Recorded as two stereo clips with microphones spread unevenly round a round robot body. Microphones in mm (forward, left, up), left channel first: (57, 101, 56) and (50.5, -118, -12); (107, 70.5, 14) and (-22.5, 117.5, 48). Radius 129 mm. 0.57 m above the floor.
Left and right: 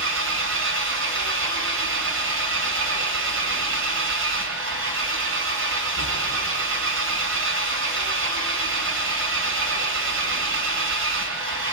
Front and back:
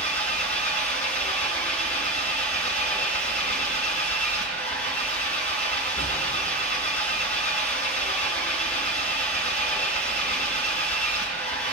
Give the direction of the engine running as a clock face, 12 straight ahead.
2 o'clock.